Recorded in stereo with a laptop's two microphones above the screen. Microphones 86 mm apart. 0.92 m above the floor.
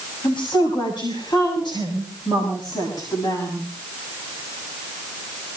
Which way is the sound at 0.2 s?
75° left (ahead or behind).